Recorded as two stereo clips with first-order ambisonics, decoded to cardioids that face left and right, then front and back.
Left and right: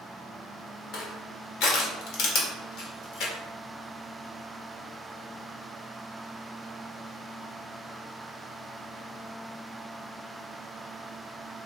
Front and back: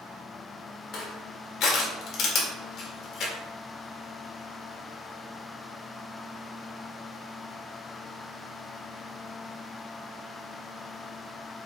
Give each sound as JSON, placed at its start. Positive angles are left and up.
{"t": 0.9, "sound": "crushing", "azimuth_deg": 50, "distance_m": 2.0}